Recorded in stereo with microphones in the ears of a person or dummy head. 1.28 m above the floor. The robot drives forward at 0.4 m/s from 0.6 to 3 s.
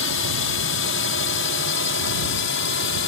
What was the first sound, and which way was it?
A drone, 65° left (ahead or behind).